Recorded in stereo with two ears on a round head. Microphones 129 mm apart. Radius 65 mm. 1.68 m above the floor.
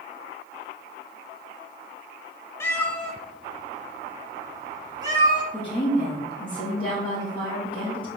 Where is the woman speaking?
15° left (ahead or behind), 2.5 m.